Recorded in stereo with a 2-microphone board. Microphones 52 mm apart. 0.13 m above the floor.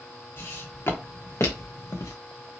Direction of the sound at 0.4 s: 50° left (ahead or behind).